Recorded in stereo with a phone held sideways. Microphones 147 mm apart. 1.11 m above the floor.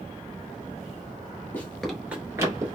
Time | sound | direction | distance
1.5 | running footsteps | 10° left (ahead or behind) | 1.2 m